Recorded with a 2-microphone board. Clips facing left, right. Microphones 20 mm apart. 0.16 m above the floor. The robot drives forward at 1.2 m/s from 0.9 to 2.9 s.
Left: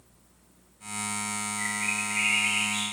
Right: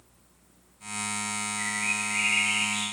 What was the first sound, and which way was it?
A bird, 5° right (ahead or behind).